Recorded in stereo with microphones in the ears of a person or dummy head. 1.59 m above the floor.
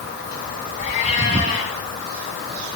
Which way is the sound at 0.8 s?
45° left (ahead or behind).